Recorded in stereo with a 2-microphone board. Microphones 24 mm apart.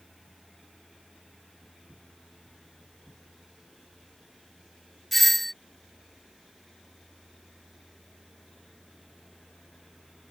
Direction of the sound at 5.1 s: 10° left (ahead or behind).